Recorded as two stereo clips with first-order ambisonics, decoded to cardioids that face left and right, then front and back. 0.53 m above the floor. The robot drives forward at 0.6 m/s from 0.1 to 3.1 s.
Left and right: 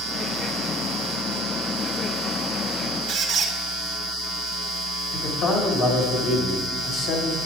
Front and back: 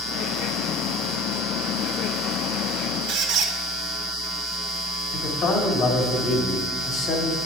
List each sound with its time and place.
3.1 s a squeak: 160° right, 1.1 m
5.1 s a man speaking: 55° left, 2.5 m